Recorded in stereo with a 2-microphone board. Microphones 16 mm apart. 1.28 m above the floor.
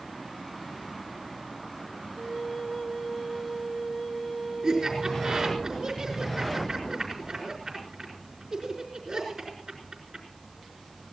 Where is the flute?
15° left (ahead or behind), 2.5 m.